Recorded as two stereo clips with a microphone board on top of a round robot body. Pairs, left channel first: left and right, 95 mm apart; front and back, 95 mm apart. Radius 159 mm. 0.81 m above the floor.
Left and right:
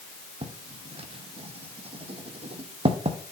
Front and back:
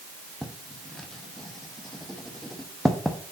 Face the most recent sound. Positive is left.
turn(degrees=-90)